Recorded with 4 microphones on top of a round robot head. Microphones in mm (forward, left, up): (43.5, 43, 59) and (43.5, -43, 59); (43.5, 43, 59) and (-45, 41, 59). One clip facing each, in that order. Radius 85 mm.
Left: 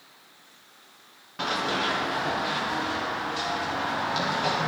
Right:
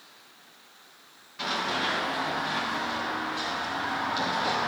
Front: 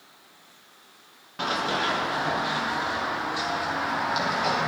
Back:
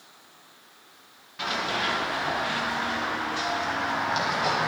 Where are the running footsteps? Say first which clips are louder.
Left 2 dB, front 2 dB; 50° left, 3.5 m; by 4.7 s 90° left, 4.5 m.